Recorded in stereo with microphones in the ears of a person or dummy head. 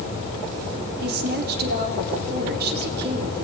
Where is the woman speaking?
55° right (ahead or behind), 4.5 m.